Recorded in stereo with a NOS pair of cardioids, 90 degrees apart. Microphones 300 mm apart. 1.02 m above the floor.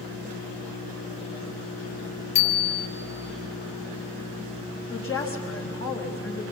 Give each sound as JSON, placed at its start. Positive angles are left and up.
{"t": 2.4, "sound": "a bicycle bell", "azimuth_deg": 60, "distance_m": 3.0}
{"t": 4.9, "sound": "a woman speaking", "azimuth_deg": 45, "distance_m": 4.5}